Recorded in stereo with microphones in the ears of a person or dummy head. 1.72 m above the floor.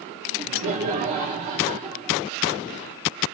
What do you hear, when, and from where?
0.3 s laughter: 40° right (ahead or behind), 0.8 m